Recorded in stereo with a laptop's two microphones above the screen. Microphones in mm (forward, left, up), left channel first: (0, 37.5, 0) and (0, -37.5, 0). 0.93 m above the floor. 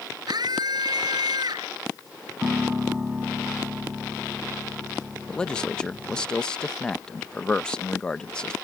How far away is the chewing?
No chewing in this recording.